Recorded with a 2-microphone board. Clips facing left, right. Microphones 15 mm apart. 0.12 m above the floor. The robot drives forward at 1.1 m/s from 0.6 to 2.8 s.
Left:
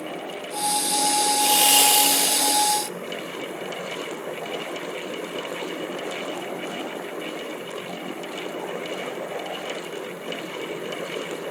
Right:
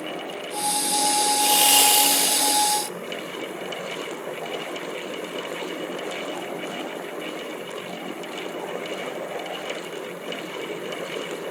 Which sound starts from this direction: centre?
Sawing, at 1.4 s.